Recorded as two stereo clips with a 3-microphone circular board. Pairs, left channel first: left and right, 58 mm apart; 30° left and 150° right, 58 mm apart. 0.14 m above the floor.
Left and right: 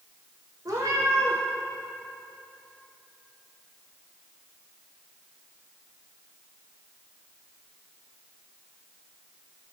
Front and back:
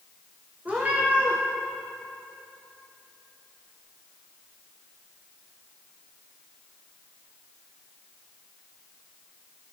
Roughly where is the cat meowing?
Right.